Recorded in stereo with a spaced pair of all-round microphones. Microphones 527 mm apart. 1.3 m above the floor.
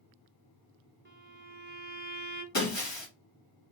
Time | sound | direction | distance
1.1 | a violin | 20° right (ahead or behind) | 0.8 m
2.5 | breaking glass | 55° left (ahead or behind) | 2 m